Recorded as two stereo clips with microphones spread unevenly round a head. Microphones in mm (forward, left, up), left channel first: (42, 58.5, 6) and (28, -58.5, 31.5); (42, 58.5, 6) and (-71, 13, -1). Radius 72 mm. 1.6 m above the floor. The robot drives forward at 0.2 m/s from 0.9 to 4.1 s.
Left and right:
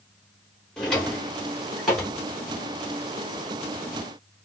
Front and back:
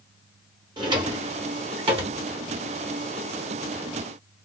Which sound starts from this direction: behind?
A drawer, at 0.8 s.